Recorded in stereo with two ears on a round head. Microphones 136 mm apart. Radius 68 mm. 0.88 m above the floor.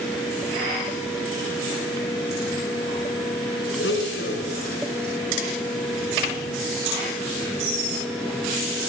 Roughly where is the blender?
Left.